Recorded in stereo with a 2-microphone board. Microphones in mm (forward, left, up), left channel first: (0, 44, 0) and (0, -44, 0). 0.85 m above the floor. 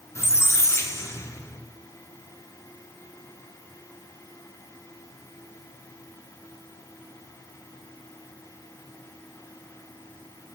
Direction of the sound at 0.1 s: 35° left (ahead or behind).